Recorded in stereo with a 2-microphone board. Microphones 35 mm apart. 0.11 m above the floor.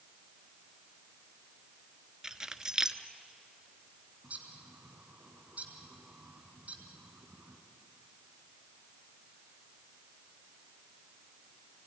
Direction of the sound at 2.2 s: 15° right (ahead or behind).